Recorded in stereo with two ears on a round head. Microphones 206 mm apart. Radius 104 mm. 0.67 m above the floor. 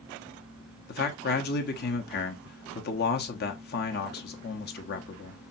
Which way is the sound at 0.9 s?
50° left (ahead or behind).